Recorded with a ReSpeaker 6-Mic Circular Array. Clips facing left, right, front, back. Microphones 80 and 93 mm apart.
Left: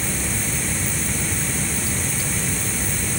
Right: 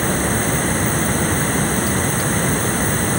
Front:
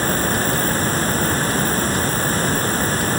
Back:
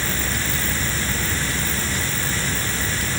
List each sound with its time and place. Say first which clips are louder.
0.0 s running water: right 8 dB, front 7 dB; 50° right